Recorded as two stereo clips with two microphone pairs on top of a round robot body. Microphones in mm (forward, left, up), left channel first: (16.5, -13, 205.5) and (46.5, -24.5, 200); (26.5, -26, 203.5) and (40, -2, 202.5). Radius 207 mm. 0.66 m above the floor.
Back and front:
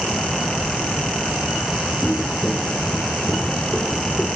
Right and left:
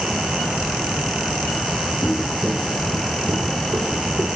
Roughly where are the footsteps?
Behind right.